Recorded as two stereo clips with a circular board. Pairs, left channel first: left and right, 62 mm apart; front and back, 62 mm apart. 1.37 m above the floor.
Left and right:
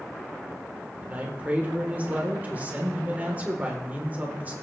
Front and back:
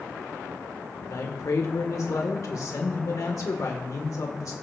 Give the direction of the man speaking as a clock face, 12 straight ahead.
1 o'clock.